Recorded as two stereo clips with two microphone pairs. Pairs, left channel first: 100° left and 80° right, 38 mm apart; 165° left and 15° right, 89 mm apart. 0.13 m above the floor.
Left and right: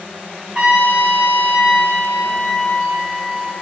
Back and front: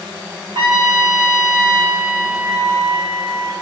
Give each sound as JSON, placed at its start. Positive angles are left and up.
{"t": 0.6, "sound": "a trumpet", "azimuth_deg": -30, "distance_m": 3.0}